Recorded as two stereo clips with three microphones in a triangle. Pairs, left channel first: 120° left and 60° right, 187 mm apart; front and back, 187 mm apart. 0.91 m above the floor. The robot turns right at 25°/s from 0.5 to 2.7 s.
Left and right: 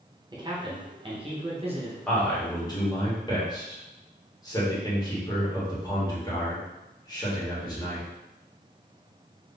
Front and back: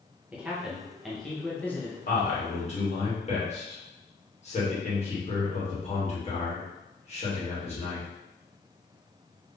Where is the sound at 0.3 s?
105° right, 0.9 m; by 2.0 s 65° right, 0.9 m.